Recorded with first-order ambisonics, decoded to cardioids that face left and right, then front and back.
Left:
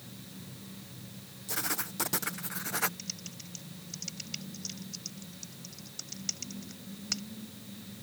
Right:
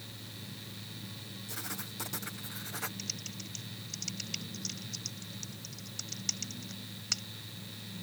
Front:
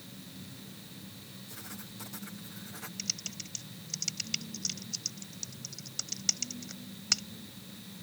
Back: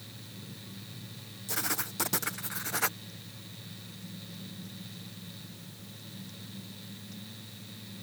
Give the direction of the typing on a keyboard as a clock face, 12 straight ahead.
12 o'clock.